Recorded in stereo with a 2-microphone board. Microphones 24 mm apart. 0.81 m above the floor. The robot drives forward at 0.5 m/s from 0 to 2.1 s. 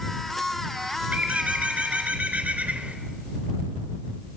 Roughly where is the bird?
Right.